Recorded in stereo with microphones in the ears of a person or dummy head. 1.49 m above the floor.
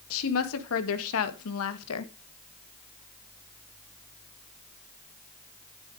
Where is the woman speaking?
75° left (ahead or behind), 2.5 m; by 2.1 s 80° left, 1.6 m.